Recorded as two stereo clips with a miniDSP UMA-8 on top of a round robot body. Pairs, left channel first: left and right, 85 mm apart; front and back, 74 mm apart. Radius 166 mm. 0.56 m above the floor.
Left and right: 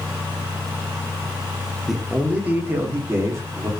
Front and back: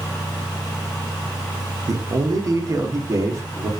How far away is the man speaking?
About 0.8 m.